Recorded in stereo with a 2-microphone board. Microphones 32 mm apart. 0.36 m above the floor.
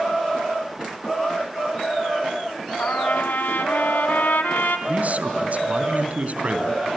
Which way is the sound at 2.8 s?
75° left (ahead or behind).